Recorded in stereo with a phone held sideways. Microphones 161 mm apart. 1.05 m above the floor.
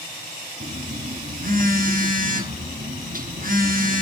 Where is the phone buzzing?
60° right (ahead or behind), 1.0 m.